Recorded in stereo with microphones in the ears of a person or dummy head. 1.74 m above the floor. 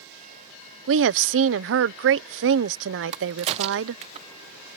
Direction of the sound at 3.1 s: 35° right (ahead or behind).